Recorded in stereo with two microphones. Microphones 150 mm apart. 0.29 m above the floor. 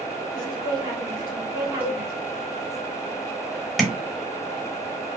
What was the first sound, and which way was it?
A woman speaking, 20° right (ahead or behind).